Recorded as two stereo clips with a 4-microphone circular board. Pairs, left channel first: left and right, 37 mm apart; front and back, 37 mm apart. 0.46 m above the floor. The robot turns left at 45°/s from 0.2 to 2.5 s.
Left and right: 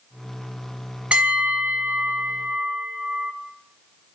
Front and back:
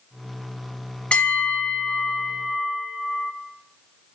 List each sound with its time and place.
1.1 s a bell: 40° right, 1.4 m; by 3.3 s 105° right, 1.4 m